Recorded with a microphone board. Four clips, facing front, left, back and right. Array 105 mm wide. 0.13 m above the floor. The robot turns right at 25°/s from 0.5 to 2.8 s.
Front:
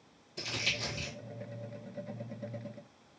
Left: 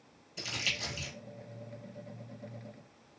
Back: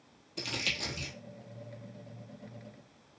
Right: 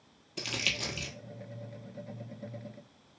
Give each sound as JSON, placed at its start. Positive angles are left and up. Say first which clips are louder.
{"t": 0.4, "sound": "crumpling", "louder": "right 3 dB, even", "azimuth_deg": -110, "distance_m": 1.1}